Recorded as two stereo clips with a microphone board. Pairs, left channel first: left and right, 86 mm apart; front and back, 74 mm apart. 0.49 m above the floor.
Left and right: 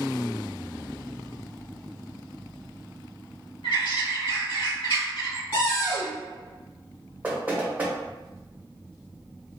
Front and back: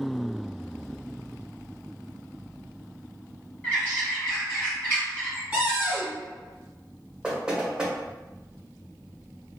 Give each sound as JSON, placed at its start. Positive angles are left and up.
{"t": 3.6, "sound": "a bird", "azimuth_deg": 75, "distance_m": 1.6}
{"t": 5.5, "sound": "a cupboard door", "azimuth_deg": 105, "distance_m": 1.8}
{"t": 7.2, "sound": "knocking", "azimuth_deg": -120, "distance_m": 0.7}